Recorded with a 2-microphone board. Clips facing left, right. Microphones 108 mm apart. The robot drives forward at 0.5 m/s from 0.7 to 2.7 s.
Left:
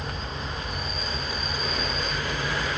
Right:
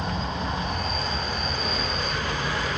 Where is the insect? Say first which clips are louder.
Right 5 dB; 85° right, 1.3 m; by 2.8 s 55° right (ahead or behind), 1.6 m.